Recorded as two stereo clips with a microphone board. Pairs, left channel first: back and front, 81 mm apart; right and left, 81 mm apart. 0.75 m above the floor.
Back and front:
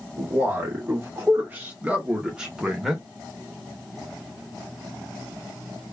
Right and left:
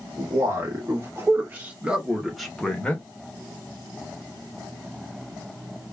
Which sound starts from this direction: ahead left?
A man speaking, at 0.2 s.